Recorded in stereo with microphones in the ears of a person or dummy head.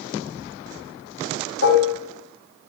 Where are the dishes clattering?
75° left (ahead or behind), 1.6 m.